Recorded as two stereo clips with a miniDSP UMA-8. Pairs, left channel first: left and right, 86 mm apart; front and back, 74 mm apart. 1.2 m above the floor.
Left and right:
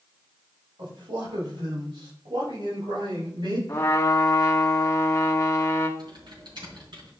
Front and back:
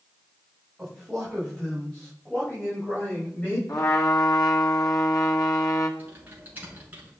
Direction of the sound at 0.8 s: 90° right.